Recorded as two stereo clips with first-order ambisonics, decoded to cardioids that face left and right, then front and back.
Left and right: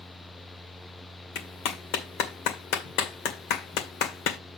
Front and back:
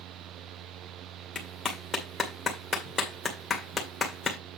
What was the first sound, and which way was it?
A clap, 75° left.